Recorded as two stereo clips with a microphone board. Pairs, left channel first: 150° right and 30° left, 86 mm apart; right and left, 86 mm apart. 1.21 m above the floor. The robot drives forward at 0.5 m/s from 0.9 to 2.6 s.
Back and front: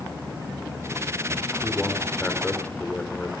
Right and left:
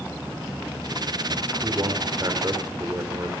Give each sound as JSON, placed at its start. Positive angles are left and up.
{"t": 1.6, "sound": "a man speaking", "azimuth_deg": 135, "distance_m": 4.5}